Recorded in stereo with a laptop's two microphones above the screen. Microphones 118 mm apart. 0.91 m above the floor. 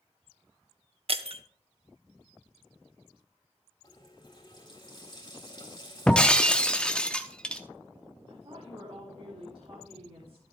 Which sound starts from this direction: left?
A running tap, at 3.8 s.